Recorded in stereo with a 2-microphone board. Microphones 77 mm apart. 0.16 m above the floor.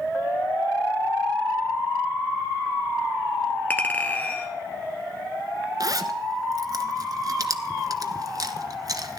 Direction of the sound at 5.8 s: 50° right (ahead or behind).